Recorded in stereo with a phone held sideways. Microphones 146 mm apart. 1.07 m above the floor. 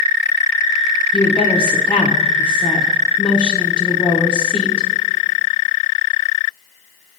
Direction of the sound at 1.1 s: 35° left (ahead or behind).